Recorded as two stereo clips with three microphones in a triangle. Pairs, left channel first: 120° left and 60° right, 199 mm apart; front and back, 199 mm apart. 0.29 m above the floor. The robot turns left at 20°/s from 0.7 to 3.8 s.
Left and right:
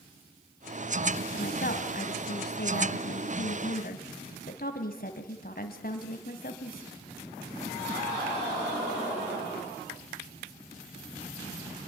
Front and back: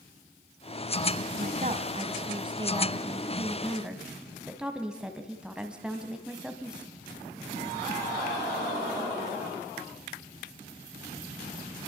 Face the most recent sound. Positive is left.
turn(degrees=95)